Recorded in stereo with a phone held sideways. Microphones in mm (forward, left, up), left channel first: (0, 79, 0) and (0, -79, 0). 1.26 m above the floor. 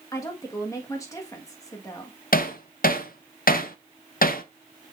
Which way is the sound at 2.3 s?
70° left (ahead or behind).